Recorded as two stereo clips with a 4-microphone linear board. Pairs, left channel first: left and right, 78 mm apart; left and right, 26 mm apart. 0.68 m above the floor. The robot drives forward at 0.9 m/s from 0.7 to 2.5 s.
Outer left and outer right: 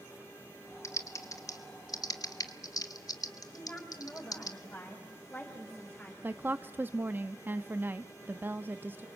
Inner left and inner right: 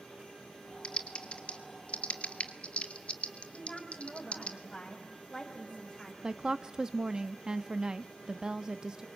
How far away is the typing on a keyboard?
About 2.0 m.